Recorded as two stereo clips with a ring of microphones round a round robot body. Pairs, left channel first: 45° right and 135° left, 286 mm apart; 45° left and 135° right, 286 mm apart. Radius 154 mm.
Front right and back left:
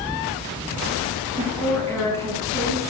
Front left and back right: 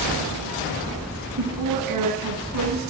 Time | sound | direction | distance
1.4 | a woman speaking | 125° right | 5 m